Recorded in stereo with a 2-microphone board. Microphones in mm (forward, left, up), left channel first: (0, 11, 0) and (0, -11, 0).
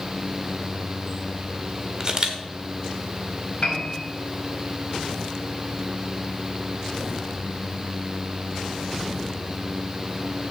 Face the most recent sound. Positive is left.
turn(degrees=45)  # may be behind; listen again after turning